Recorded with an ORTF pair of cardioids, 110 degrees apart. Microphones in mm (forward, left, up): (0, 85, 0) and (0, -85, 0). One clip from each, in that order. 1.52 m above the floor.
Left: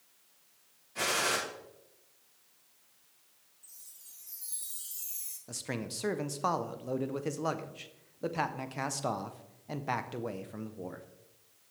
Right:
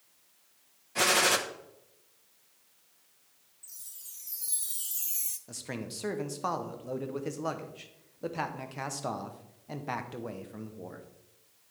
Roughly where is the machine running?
I don't hear a machine running.